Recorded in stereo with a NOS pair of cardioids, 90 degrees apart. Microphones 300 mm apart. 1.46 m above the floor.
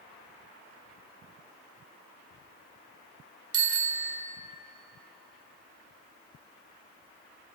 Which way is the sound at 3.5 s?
55° right.